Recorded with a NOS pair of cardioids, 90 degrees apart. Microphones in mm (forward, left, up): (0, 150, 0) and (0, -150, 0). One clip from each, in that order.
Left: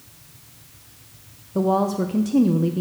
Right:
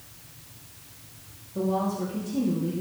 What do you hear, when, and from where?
1.6 s a woman speaking: 55° left, 0.8 m